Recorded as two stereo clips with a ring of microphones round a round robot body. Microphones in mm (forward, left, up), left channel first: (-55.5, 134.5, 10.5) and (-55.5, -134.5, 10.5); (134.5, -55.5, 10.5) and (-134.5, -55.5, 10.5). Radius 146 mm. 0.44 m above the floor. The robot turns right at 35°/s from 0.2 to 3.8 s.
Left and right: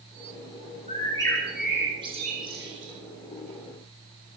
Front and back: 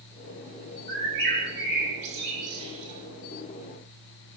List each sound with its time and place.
0.9 s a bird: 155° left, 7 m; by 2.9 s 130° right, 7 m